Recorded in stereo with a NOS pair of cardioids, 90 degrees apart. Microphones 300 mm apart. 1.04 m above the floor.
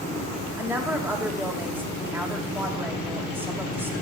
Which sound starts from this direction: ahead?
A woman speaking, at 0.6 s.